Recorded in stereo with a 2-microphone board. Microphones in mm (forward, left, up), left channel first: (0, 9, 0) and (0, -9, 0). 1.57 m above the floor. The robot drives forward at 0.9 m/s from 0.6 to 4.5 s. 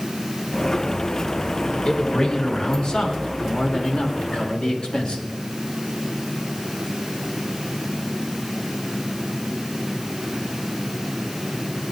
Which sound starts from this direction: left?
A man speaking, at 1.9 s.